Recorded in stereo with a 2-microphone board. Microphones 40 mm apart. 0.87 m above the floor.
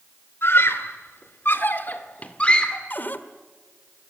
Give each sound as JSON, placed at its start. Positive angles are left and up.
{"t": 0.4, "sound": "a scream", "side_deg": 80, "distance_m": 2.5}
{"t": 2.9, "sound": "a cupboard door", "side_deg": 50, "distance_m": 1.3}